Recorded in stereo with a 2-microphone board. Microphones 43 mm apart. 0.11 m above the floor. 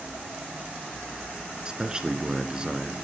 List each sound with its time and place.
1.6 s a man speaking: 20° right (ahead or behind), 1.3 m